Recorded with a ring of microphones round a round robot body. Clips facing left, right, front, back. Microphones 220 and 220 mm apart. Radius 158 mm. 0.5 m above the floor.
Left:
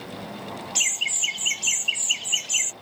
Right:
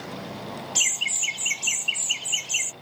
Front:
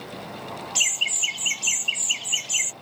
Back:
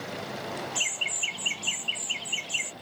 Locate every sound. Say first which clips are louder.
0.8 s laughter: right 1 dB, back 1 dB; 5° right; by 2.7 s 20° left